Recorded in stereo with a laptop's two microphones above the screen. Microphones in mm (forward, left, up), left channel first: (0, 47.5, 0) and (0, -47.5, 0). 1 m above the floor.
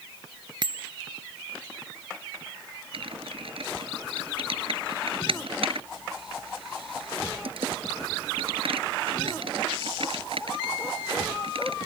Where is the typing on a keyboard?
70° right (ahead or behind).